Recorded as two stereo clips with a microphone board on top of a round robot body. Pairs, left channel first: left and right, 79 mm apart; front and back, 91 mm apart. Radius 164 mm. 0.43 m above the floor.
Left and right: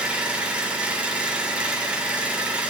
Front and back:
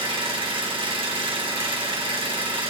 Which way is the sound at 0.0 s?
165° right.